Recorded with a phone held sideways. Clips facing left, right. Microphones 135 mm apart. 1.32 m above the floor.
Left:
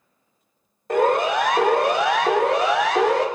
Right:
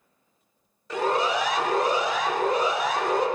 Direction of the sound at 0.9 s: 55° left (ahead or behind).